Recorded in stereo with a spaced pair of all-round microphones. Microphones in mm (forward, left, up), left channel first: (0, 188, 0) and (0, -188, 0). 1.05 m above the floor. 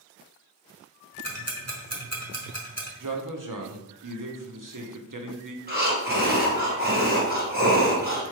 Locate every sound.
1.2 s ticking: 40° right (ahead or behind), 1.1 m
3.0 s a man speaking: 55° right (ahead or behind), 0.8 m
5.7 s breathing: 25° right (ahead or behind), 1.5 m